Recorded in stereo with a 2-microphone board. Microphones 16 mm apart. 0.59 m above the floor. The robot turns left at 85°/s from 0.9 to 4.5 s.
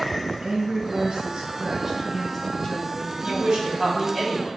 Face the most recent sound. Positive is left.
turn(degrees=165)